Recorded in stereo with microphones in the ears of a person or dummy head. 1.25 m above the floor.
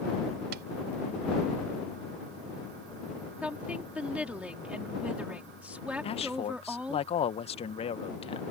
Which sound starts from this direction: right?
Tapping, at 0.5 s.